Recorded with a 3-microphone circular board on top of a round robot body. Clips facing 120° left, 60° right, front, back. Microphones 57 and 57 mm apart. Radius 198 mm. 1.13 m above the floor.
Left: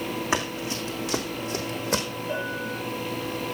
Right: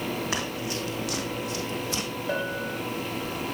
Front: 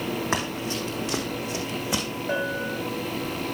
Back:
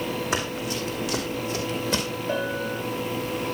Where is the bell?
50° right, 5.5 m.